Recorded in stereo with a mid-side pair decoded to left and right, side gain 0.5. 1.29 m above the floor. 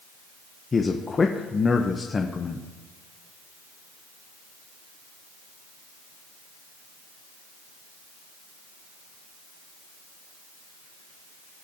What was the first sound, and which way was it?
A man speaking, 30° left.